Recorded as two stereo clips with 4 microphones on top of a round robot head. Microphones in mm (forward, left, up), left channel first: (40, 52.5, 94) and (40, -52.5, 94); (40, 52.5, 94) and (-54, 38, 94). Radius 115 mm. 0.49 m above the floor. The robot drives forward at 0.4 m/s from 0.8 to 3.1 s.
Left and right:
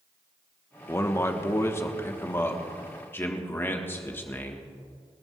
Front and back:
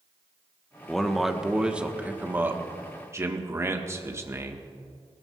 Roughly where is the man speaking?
Left.